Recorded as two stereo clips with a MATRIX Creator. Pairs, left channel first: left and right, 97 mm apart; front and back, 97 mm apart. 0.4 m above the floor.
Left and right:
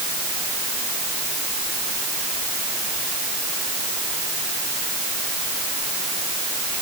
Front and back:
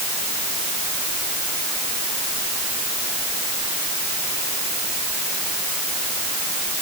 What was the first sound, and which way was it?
Only background noise.